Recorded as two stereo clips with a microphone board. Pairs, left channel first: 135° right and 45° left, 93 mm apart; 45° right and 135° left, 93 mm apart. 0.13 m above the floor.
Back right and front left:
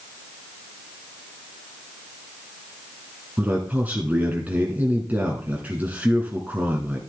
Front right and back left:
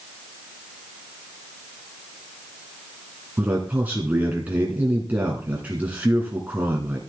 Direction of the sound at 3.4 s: 90° left.